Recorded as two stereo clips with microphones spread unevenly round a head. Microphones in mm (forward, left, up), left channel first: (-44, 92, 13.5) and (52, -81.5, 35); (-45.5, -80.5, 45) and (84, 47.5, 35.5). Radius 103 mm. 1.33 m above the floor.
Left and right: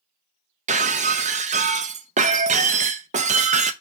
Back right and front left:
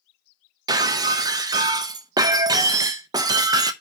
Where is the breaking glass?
25° right, 0.7 m.